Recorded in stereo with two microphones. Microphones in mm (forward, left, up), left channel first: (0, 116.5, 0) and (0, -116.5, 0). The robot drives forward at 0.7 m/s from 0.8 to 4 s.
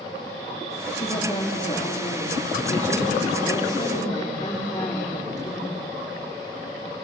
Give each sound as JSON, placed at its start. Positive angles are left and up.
{"t": 0.9, "sound": "a woman speaking", "side_deg": 30, "distance_m": 4.0}